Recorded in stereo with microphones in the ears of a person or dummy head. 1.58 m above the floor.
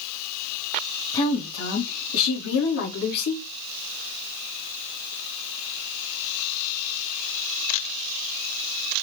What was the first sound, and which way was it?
A woman speaking, 20° left (ahead or behind).